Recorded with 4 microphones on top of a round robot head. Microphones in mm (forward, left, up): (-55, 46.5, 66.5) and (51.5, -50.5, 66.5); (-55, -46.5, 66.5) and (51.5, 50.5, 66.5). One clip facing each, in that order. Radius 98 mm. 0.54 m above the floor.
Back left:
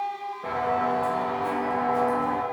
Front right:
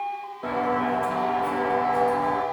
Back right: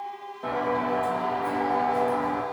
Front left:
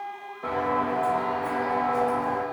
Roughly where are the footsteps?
Ahead right.